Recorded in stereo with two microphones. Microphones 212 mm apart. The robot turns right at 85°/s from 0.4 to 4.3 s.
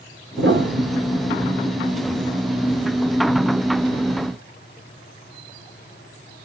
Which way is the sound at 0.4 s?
80° right.